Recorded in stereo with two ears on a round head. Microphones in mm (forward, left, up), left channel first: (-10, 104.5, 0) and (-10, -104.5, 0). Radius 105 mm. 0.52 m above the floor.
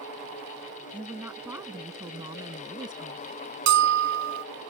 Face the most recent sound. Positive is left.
turn(degrees=-50)  # may be behind; listen again after turning